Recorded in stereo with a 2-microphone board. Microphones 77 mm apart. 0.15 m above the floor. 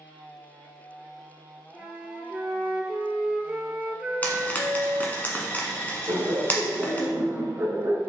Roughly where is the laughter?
Right.